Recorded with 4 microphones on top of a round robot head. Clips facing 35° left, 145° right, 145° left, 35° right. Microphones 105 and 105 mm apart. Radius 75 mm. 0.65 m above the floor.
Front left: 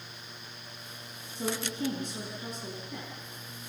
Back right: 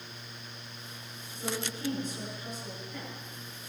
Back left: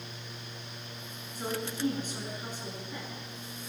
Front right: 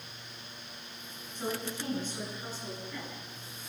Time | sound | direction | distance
1.4 | a woman speaking | 65° left | 7.5 m